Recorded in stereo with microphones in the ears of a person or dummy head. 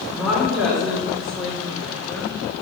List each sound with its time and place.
0.1 s a woman speaking: 5° right (ahead or behind), 4.5 m; by 2.4 s 10° left (ahead or behind), 2 m